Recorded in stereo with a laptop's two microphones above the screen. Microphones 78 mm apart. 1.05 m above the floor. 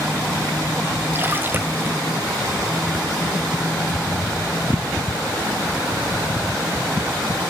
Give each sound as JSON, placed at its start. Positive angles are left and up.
{"t": 1.1, "sound": "a splash", "side_deg": -25, "distance_m": 0.8}